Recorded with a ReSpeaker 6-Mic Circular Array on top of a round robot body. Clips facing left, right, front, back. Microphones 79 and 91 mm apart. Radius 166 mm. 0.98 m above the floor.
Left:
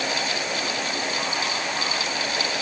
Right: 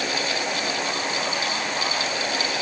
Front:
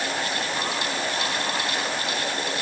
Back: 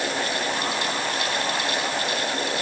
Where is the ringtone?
I don't hear a ringtone.